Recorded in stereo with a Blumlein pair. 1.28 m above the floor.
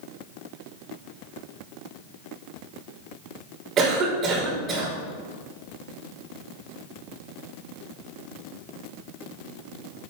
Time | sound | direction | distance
3.8 | a cough | 25° right | 4 m